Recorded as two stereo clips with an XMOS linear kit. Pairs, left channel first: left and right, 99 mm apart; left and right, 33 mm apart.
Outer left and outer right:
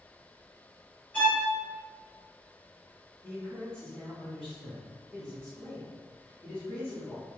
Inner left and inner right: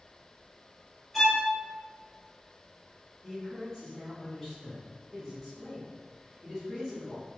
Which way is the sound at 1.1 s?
15° left (ahead or behind).